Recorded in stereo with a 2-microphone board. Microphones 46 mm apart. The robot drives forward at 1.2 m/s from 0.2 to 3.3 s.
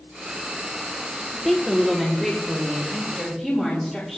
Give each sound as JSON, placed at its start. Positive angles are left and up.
{"t": 1.3, "sound": "a woman speaking", "side_deg": 0, "distance_m": 1.6}